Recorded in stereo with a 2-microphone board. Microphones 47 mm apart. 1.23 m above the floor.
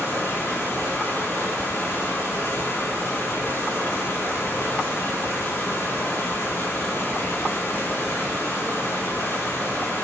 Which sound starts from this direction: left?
Running water, at 0.0 s.